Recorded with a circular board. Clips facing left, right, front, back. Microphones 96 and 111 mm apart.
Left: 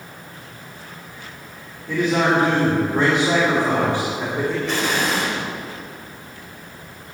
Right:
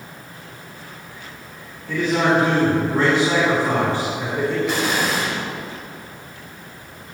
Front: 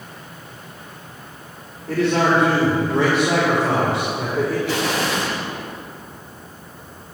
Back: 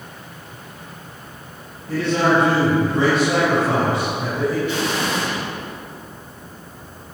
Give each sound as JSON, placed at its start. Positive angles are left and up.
{"t": 1.9, "sound": "a man speaking", "azimuth_deg": 15, "distance_m": 2.0}
{"t": 4.7, "sound": "an explosion", "azimuth_deg": -5, "distance_m": 1.7}